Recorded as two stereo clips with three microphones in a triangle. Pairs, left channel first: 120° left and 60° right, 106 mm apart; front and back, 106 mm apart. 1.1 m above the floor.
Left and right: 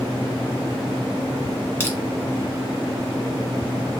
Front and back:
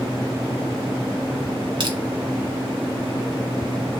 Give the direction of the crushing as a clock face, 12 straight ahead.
6 o'clock.